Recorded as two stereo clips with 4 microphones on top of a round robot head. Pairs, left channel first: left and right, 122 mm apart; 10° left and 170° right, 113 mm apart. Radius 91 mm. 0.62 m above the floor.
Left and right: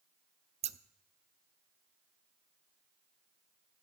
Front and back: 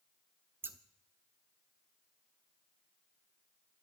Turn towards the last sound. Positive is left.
turn(degrees=-105)